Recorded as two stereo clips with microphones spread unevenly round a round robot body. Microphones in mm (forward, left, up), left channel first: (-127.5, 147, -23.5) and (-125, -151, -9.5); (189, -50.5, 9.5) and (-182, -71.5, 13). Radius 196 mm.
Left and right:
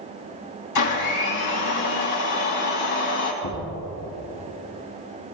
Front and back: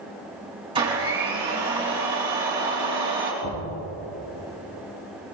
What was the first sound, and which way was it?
A blender, 105° left.